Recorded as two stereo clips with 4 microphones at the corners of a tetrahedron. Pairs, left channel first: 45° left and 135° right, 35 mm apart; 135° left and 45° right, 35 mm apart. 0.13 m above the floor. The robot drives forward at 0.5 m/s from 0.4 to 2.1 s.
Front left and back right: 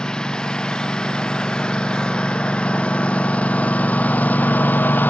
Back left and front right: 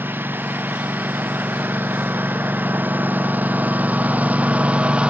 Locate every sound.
0.0 s a lawn mower: 25° right; by 5.1 s 10° left